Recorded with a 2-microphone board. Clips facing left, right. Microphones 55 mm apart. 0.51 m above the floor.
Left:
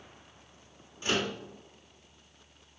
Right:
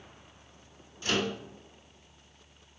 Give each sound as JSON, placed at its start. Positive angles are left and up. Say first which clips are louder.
{"t": 1.0, "sound": "a microwave", "louder": "right 1 dB", "side_deg": 20, "distance_m": 1.0}